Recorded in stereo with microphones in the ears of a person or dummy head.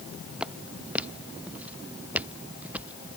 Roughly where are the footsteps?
Centre.